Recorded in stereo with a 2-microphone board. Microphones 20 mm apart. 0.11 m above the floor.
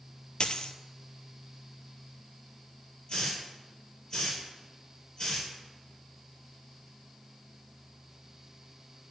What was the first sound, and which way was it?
A dropped coin, 55° left (ahead or behind).